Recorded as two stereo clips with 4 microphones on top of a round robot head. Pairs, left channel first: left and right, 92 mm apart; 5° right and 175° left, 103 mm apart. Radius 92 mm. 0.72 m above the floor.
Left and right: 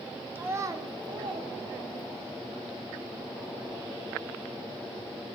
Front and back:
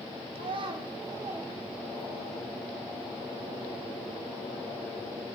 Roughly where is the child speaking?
Behind.